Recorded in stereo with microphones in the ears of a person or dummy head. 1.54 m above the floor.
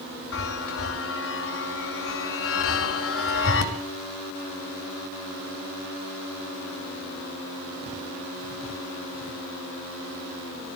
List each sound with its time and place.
0.3 s a chime: 65° left (ahead or behind), 2.5 m